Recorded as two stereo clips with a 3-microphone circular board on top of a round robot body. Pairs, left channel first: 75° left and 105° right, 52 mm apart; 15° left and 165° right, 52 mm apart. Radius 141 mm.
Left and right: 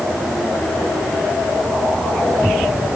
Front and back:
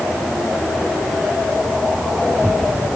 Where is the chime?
I don't hear a chime.